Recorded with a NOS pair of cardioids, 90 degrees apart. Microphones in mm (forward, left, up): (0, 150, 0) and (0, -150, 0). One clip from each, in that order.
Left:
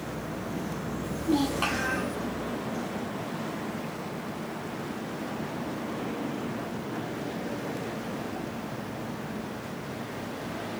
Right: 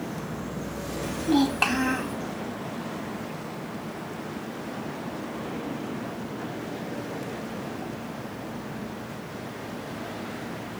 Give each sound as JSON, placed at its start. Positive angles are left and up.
{"t": 1.0, "sound": "a child speaking", "azimuth_deg": -40, "distance_m": 1.6}